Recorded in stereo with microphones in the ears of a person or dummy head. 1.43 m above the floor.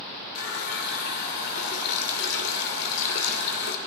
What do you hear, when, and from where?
0.3 s a running tap: 65° left (ahead or behind), 3 m